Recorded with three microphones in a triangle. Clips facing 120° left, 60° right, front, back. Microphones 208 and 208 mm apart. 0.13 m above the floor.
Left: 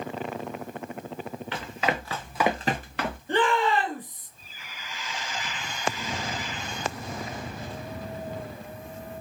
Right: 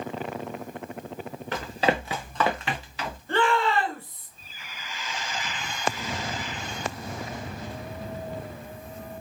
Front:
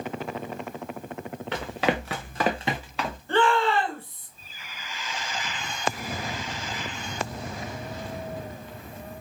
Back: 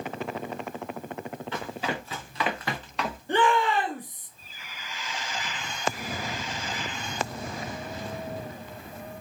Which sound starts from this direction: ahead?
Running footsteps, at 1.5 s.